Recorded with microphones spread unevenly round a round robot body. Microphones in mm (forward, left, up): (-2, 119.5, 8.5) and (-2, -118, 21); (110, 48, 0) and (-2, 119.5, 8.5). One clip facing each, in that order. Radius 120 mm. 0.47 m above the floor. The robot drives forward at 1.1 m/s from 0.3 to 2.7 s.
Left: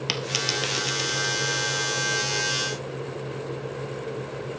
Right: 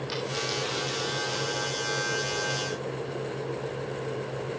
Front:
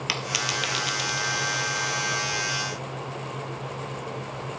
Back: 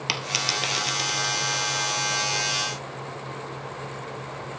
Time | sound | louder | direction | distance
0.1 | a dropped coin | even, back 1 dB | 85° left | 1.6 m